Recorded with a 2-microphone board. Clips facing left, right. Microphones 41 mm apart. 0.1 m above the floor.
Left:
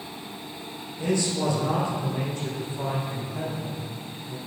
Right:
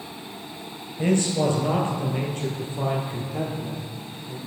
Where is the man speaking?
45° right (ahead or behind), 1.7 m.